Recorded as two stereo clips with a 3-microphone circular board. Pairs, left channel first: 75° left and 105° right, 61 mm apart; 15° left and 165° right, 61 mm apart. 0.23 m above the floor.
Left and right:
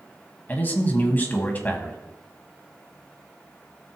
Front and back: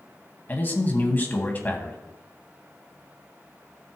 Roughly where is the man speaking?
Ahead left.